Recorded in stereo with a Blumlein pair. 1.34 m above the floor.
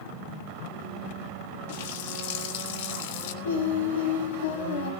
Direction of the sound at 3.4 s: 60° left.